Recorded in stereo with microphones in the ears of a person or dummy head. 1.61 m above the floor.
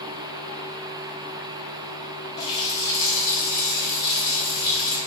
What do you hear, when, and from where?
2.4 s a running tap: 25° left (ahead or behind), 1.2 m